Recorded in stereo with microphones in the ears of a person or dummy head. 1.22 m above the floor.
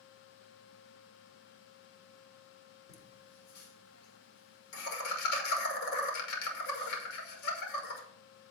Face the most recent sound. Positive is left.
turn(degrees=55)  # may be behind; listen again after turning